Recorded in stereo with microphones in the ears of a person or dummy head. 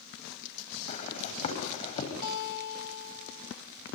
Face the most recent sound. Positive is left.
turn(degrees=50)  # may be behind; listen again after turning